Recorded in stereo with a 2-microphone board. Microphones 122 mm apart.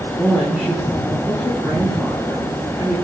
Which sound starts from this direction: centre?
A woman speaking, at 0.1 s.